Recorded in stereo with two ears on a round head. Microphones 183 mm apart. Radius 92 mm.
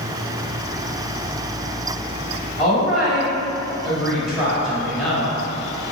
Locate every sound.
2.6 s a woman speaking: 5° right (ahead or behind), 1.7 m